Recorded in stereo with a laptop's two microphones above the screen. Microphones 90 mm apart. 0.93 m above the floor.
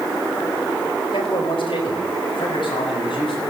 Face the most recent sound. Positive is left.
turn(degrees=65)  # may be behind; listen again after turning